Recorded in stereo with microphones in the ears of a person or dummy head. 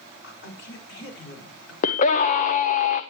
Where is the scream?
50° left (ahead or behind), 0.9 m.